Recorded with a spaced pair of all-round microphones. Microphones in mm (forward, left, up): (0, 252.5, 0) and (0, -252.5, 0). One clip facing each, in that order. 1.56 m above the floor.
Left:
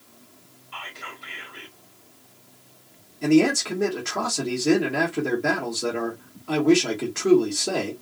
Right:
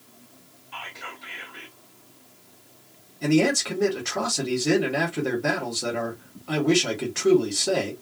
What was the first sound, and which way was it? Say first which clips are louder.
Whispering: even; 5° right (ahead or behind).